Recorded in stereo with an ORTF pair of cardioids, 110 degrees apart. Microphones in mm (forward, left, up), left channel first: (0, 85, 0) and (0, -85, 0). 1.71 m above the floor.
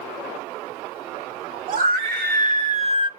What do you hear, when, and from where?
1.7 s a scream: 70° right, 1.2 m; by 3.1 s 35° right, 0.5 m